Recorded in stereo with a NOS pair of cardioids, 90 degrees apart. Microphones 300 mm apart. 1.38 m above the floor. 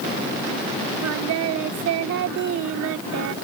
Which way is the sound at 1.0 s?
70° right.